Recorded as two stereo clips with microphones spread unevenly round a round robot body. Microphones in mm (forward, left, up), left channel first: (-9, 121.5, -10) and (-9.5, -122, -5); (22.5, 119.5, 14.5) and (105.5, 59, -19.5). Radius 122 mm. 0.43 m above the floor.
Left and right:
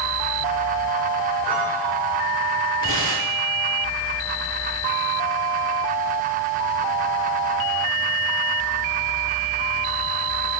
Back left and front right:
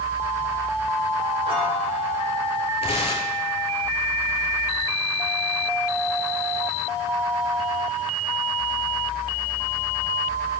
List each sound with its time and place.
1.4 s a piano: 5° right, 7 m
2.8 s tearing paper: 125° left, 3 m